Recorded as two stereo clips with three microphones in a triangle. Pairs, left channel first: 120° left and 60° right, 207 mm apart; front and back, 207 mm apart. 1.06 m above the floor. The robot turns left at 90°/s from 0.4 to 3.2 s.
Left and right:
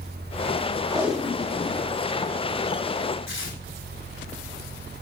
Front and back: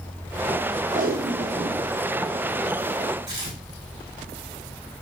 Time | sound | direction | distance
0.9 | tape being pulled | 130° right | 0.8 m
3.3 | tearing paper | 110° left | 1.9 m